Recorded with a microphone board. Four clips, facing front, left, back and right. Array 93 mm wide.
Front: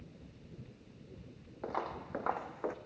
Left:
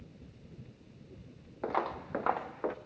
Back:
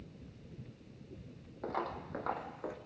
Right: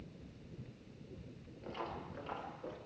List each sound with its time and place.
1.6 s footsteps: 85° left, 3 m; by 2.8 s 65° left, 1.7 m